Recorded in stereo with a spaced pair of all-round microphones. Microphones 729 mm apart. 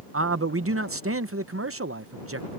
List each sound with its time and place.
0.1 s a man speaking: 20° right (ahead or behind)